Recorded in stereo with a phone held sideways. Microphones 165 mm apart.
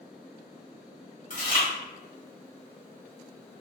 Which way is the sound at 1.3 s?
50° left (ahead or behind).